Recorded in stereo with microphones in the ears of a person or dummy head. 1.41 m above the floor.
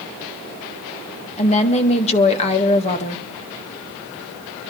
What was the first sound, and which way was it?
A woman speaking, 30° left (ahead or behind).